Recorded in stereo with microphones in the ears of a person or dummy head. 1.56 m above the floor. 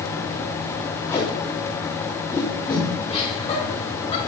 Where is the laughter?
25° left (ahead or behind), 5 m.